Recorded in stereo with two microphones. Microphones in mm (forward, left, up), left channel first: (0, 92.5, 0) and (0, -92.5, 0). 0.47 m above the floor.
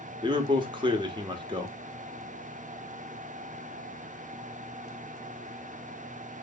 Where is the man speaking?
25° right (ahead or behind), 0.8 m.